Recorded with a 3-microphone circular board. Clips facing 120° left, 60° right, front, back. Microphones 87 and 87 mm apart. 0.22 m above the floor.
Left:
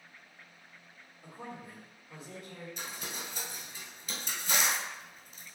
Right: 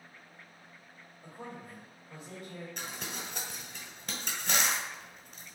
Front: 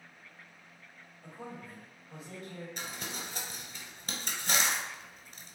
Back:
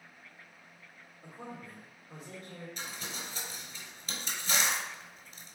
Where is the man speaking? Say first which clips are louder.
Even, even; 170° right, 1.8 m.